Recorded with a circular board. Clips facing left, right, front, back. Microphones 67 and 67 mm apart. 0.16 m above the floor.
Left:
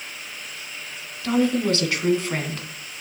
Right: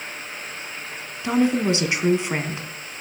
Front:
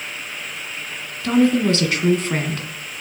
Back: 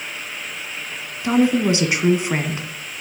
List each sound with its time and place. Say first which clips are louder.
1.2 s a woman speaking: right 1 dB, front 1 dB; 130° right, 1.6 m